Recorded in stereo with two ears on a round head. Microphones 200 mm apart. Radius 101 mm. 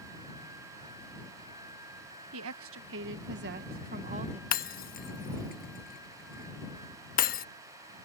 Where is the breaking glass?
40° left (ahead or behind).